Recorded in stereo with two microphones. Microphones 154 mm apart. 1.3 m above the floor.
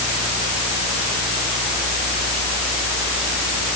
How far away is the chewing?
I don't hear chewing.